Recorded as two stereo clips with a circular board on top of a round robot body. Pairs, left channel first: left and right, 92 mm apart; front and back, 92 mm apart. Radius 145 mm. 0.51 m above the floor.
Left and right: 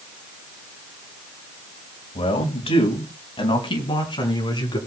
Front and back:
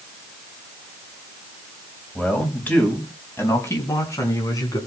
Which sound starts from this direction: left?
A man speaking, at 2.1 s.